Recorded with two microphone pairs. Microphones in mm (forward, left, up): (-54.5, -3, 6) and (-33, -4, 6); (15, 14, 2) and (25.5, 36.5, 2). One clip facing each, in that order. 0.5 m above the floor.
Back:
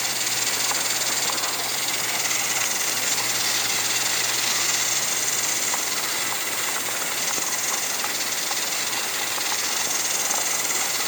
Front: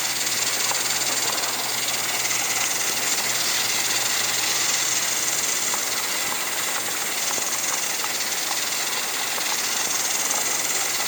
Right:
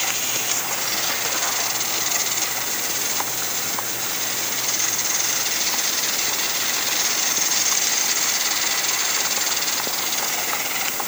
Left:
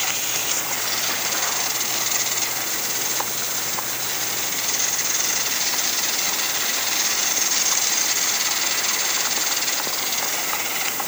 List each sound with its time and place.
Only background noise.